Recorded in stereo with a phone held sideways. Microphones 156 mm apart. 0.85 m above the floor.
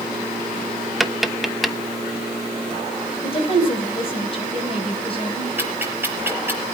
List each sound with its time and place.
1.0 s tapping: centre (ahead or behind), 0.8 m
3.2 s a woman speaking: 35° left (ahead or behind), 4.5 m
5.6 s ticking: 15° right (ahead or behind), 4.5 m